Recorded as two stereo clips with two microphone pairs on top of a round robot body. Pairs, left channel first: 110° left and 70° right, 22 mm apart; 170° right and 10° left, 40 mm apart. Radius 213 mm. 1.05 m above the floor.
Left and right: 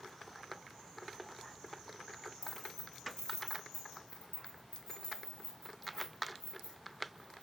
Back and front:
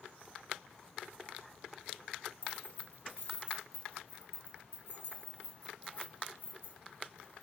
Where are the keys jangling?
145° left, 0.8 m.